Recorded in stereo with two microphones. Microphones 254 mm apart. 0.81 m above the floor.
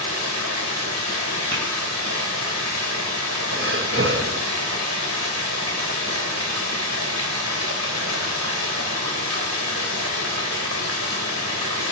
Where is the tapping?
55° right (ahead or behind), 4.5 m.